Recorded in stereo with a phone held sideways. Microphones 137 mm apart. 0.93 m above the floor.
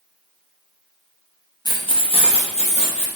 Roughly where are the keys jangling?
Left.